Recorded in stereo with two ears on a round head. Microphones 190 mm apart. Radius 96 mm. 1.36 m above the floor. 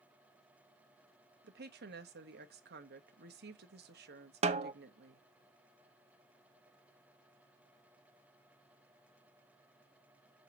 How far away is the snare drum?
About 0.6 m.